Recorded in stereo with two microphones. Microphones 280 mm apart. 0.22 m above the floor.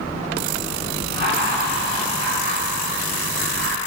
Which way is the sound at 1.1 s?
35° right (ahead or behind).